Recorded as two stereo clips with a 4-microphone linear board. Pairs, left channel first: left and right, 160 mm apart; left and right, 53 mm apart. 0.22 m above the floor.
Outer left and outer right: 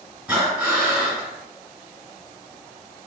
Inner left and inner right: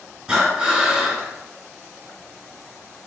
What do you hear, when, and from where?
0.3 s breathing: 10° right (ahead or behind), 2.0 m